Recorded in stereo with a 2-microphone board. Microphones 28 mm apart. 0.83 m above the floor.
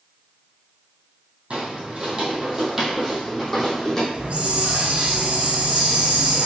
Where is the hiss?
45° right (ahead or behind), 0.6 m.